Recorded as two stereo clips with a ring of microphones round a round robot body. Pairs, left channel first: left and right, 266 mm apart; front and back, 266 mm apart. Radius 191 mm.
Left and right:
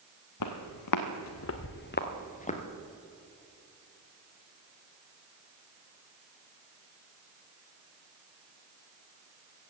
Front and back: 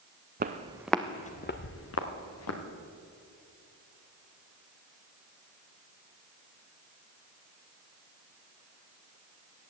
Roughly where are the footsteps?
Behind left.